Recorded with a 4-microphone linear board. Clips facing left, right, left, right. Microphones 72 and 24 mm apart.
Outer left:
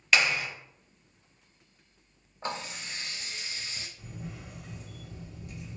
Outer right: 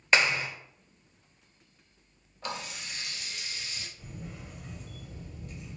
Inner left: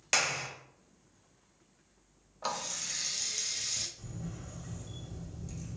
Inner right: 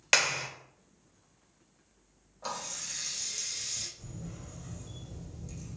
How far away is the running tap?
About 0.6 m.